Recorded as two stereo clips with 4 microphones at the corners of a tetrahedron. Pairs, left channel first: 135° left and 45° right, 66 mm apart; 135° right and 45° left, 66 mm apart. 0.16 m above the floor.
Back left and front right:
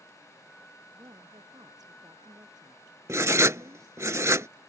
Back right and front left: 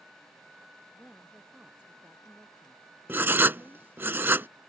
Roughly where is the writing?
Ahead.